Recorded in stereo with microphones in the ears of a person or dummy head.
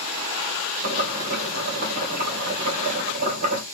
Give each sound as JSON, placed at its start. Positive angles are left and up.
{"t": 0.8, "sound": "boiling", "side_deg": -45, "distance_m": 1.6}